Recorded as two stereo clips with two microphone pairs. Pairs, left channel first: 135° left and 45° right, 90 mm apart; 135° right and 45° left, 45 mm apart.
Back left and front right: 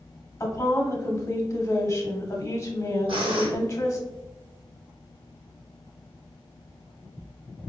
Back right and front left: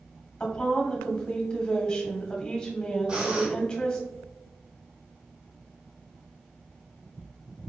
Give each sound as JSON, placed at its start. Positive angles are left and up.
{"t": 0.4, "sound": "a woman speaking", "azimuth_deg": 160, "distance_m": 1.2}
{"t": 3.1, "sound": "breathing", "azimuth_deg": -20, "distance_m": 1.5}